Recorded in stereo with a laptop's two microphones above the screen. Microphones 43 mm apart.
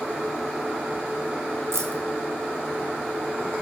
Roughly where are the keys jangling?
Right.